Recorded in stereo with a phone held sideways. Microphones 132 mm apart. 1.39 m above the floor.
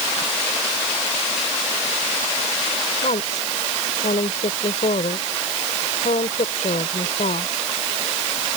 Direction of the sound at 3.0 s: 80° left.